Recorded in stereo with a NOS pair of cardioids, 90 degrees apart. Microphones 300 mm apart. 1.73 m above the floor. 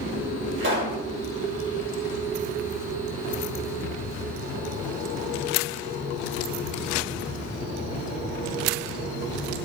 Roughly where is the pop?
Ahead right.